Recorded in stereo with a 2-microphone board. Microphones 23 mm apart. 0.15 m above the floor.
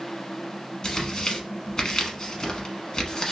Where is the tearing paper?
25° left (ahead or behind), 0.9 m.